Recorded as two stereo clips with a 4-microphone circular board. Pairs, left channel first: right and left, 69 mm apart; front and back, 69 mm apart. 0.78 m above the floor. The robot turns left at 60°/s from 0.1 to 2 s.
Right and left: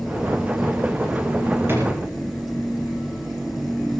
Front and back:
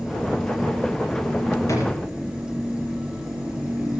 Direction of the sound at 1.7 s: 40° left.